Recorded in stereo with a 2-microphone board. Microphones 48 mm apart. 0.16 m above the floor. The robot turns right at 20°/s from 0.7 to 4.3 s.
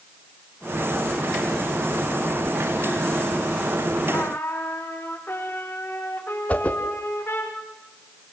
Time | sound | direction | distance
4.1 | a trumpet | 45° left (ahead or behind) | 5.5 m
6.5 | a whoosh | 30° left (ahead or behind) | 2 m